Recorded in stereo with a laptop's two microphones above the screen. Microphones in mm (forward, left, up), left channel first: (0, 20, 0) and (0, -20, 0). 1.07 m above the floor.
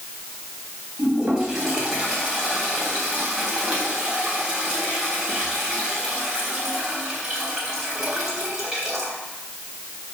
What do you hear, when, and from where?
1.0 s a toilet flushing: 10° right (ahead or behind), 3.5 m